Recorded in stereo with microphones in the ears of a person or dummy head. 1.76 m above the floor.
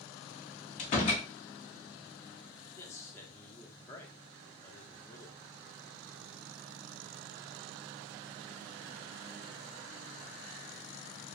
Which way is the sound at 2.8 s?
15° left (ahead or behind).